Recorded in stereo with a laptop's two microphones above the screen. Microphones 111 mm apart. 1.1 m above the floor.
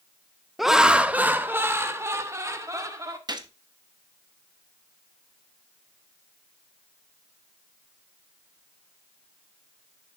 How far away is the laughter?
About 0.8 m.